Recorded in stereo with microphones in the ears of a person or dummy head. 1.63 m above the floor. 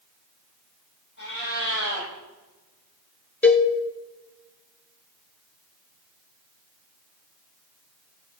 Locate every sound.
1.2 s a cat meowing: 60° left (ahead or behind), 5 m
3.4 s a cowbell: 5° left (ahead or behind), 0.7 m